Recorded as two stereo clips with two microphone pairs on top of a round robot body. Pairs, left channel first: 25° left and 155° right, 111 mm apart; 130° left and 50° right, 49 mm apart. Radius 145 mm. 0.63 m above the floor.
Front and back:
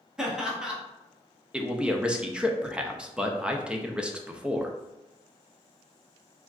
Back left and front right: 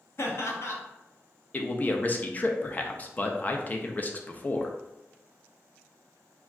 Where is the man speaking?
120° left, 0.5 m.